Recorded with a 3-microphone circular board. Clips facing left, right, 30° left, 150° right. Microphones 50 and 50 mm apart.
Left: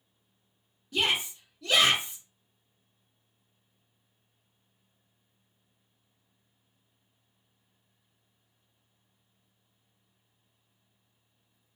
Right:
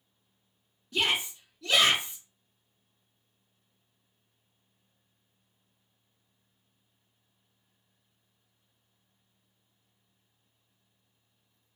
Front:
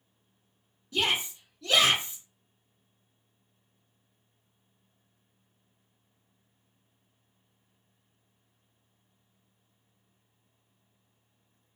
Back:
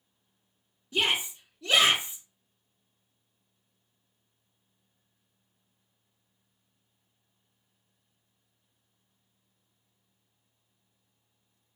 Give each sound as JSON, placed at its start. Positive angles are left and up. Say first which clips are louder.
{"t": 0.9, "sound": "a shout", "louder": "even, back 1 dB", "azimuth_deg": 175, "distance_m": 1.1}